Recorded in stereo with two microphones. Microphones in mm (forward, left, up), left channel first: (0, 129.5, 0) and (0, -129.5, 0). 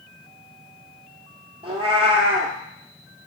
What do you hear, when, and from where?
1.6 s a cat meowing: 20° right (ahead or behind), 0.8 m